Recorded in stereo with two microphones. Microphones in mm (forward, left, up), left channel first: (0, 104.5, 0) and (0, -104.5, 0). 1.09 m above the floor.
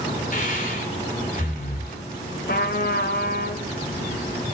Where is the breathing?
45° left (ahead or behind), 3.5 m.